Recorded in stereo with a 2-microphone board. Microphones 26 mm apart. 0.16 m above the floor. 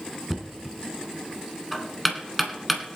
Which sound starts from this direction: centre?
Knocking, at 0.3 s.